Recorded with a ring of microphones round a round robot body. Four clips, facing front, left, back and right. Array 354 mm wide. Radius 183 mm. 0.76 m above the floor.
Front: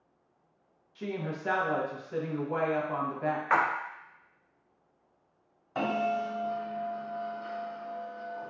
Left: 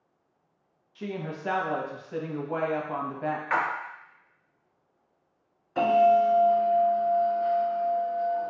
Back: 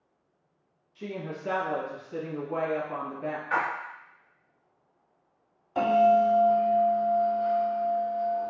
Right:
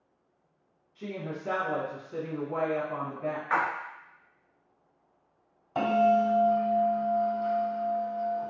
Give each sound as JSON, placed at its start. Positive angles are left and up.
{"t": 0.9, "sound": "a woman speaking", "azimuth_deg": 65, "distance_m": 0.8}
{"t": 3.5, "sound": "a splash", "azimuth_deg": 10, "distance_m": 0.6}
{"t": 5.8, "sound": "a bell", "azimuth_deg": -85, "distance_m": 1.5}